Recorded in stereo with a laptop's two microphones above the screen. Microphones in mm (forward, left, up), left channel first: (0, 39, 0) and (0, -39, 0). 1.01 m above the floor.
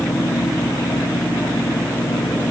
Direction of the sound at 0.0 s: 85° left.